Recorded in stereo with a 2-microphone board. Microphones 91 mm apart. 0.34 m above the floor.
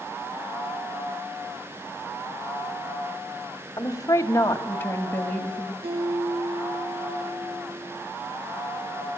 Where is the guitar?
80° right, 6.5 m.